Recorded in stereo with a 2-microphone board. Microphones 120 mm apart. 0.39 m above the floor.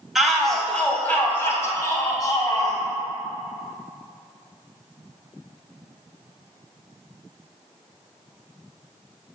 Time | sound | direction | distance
0.1 | a shout | 5° right (ahead or behind) | 2.5 m